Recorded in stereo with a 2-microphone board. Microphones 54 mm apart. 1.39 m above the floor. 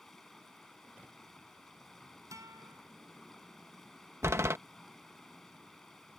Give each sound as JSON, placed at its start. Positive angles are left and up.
{"t": 0.0, "sound": "running water", "side_deg": 5}
{"t": 2.3, "sound": "a guitar", "side_deg": -85}
{"t": 4.2, "sound": "a door slam", "side_deg": -55}